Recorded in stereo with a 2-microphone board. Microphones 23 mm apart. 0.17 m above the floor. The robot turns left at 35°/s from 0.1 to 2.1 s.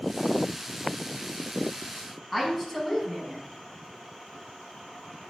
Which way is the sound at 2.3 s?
15° left (ahead or behind).